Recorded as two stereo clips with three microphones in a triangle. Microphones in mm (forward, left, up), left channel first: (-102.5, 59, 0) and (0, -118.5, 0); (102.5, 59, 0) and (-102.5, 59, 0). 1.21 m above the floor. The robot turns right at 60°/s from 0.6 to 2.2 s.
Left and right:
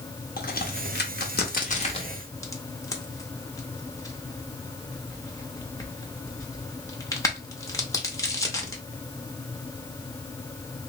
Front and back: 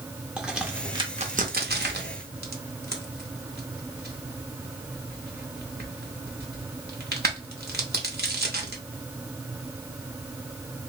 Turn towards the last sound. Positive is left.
turn(degrees=-170)